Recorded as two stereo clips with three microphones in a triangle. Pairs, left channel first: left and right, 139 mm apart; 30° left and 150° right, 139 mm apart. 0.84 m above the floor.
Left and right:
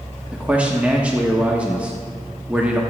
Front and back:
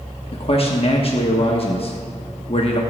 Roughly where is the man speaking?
Ahead.